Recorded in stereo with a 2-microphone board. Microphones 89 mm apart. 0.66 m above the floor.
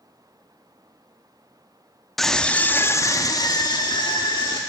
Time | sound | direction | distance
2.2 | a scream | centre (ahead or behind) | 0.8 m